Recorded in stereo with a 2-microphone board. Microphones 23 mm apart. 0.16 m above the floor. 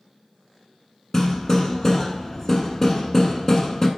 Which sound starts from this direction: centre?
Hammering, at 1.1 s.